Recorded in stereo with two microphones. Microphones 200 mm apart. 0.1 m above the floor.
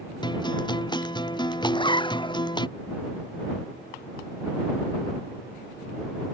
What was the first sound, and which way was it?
A guitar, 20° left (ahead or behind).